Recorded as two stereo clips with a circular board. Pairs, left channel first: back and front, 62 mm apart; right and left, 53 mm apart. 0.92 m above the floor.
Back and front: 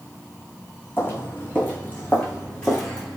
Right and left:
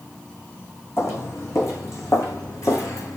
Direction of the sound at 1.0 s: 125° right.